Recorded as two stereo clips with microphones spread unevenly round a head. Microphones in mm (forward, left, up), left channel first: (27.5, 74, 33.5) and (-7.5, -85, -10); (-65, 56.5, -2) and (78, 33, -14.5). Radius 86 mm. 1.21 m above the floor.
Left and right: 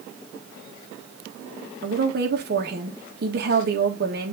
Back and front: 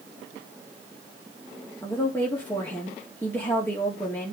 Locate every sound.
1.8 s a woman speaking: 110° right, 1.8 m